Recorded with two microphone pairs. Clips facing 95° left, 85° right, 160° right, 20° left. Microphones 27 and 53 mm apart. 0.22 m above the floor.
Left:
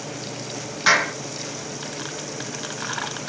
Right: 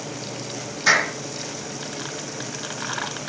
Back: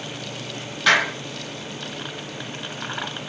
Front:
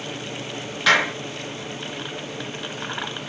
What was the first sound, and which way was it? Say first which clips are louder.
A clap: even, even; 105° left.